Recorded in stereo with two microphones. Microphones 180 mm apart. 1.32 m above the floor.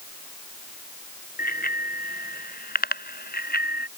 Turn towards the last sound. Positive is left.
turn(degrees=60)  # may be behind; listen again after turning